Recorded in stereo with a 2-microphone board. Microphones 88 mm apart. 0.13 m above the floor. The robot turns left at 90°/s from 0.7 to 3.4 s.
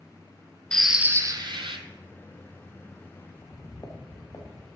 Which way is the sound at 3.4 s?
40° left (ahead or behind).